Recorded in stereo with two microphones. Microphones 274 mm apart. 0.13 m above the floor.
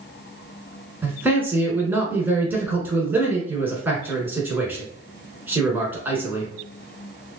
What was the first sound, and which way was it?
A man speaking, 10° right (ahead or behind).